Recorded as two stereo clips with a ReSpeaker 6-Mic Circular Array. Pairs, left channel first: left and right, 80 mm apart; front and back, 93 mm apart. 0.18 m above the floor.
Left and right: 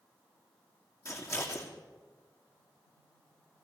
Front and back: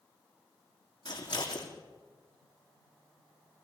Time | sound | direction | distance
1.1 | scissors | 35° left | 3 m